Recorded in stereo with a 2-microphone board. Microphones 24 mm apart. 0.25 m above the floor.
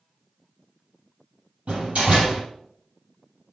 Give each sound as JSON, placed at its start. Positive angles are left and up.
{"t": 1.7, "sound": "a door slam", "side_deg": -70, "distance_m": 4.5}